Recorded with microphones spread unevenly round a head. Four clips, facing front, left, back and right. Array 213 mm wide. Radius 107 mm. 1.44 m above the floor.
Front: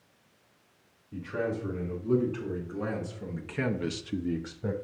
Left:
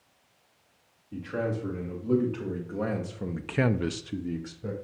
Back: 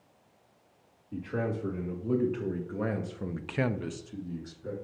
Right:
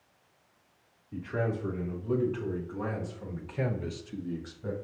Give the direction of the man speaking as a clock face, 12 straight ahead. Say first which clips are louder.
Left 1 dB, front 1 dB; 7 o'clock.